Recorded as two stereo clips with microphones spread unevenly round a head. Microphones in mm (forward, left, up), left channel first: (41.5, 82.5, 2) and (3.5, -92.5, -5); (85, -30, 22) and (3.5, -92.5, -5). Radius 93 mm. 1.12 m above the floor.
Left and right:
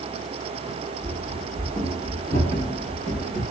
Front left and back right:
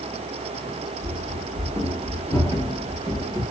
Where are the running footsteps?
175° right, 1.4 m; by 3.4 s 90° right, 1.4 m.